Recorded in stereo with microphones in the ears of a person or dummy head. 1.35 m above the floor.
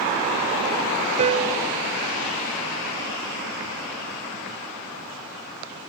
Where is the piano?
30° right (ahead or behind).